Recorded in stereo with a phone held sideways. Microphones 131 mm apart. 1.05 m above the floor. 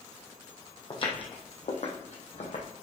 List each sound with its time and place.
0.9 s footsteps: 40° left (ahead or behind), 1.8 m; by 2.6 s 55° left (ahead or behind), 2 m